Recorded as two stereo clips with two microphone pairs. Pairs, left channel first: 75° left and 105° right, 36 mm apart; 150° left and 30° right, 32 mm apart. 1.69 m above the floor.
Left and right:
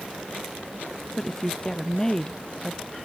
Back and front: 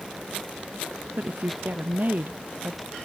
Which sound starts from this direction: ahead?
A woman speaking, at 1.2 s.